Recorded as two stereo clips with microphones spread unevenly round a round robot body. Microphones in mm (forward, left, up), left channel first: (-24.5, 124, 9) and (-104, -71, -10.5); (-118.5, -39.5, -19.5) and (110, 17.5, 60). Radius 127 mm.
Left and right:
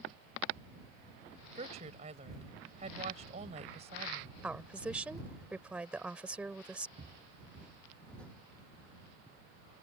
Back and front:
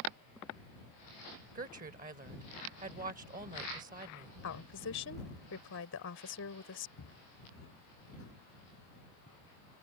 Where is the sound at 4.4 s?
165° left.